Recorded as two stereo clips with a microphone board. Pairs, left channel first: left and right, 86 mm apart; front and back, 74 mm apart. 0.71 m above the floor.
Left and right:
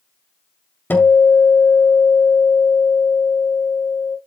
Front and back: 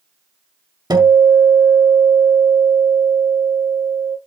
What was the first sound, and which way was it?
A guitar, 155° left.